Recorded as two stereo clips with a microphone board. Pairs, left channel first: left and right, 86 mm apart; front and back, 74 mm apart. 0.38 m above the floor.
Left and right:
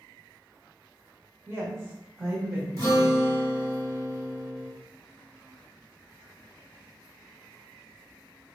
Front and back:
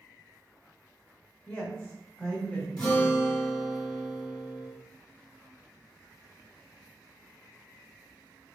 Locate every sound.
1.5 s a woman speaking: 65° right, 1.3 m
2.8 s a guitar: 75° right, 1.6 m